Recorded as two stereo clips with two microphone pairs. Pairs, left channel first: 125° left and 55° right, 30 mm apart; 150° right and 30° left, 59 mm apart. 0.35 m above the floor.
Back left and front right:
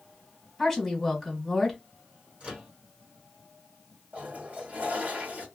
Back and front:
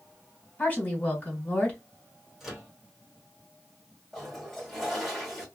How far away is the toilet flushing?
About 1.2 m.